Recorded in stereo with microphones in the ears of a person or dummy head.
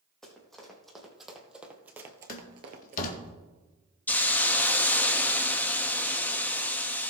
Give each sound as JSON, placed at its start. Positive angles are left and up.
{"t": 0.2, "sound": "running footsteps", "side_deg": 5, "distance_m": 4.0}
{"t": 2.3, "sound": "a door slam", "side_deg": 50, "distance_m": 1.7}
{"t": 4.1, "sound": "a hiss", "side_deg": 10, "distance_m": 0.6}